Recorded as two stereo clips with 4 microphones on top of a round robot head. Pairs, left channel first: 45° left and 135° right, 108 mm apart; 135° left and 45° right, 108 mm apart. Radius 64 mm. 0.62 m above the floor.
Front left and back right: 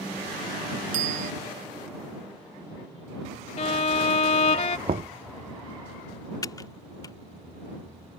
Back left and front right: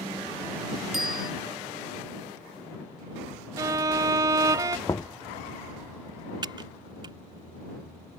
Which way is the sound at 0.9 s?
135° right.